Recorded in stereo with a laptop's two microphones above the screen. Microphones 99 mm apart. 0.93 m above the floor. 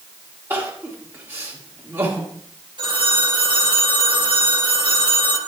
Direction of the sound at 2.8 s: 55° right (ahead or behind).